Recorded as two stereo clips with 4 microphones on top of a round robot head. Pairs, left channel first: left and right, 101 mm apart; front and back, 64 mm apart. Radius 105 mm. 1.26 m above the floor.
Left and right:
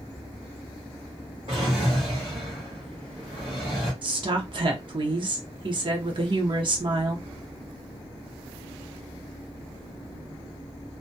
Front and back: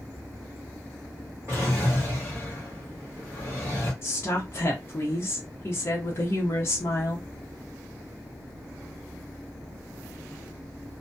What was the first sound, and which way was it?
A drawer, 120° right.